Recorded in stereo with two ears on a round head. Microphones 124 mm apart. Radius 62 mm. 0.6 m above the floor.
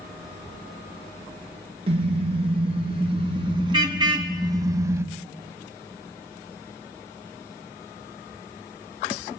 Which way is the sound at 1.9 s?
45° right (ahead or behind).